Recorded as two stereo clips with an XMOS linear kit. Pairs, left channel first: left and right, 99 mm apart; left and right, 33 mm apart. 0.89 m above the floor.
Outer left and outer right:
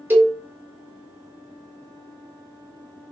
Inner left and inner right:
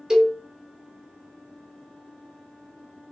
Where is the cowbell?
20° right (ahead or behind), 0.9 m.